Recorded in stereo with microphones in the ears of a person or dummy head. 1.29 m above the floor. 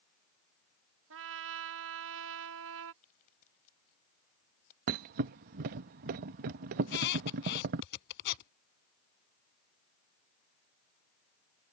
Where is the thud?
40° right (ahead or behind).